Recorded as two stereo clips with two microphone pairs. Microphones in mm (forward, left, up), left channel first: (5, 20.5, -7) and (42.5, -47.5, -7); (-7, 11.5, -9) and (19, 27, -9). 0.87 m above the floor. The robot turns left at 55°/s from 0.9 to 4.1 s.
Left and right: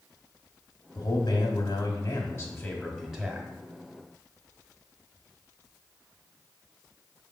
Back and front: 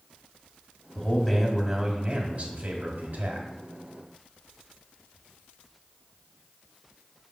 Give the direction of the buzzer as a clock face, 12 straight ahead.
No buzzer in this recording.